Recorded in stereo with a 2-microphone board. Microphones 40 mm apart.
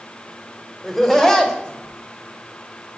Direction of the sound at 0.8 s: 5° left (ahead or behind).